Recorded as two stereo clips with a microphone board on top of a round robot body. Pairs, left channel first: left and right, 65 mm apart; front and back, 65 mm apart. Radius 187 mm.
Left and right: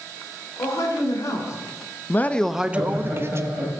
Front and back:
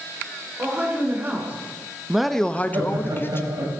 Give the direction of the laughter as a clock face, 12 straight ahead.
6 o'clock.